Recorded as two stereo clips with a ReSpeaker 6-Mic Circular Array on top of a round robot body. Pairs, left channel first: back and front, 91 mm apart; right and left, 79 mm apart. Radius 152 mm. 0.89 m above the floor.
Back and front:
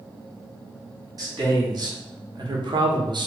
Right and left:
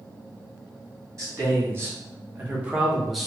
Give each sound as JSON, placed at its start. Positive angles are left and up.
{"t": 1.2, "sound": "a man speaking", "azimuth_deg": 45, "distance_m": 1.7}